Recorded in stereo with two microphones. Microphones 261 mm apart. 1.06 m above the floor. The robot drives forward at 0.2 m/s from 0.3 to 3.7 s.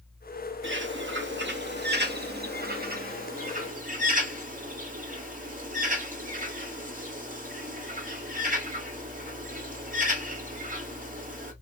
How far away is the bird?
About 0.7 m.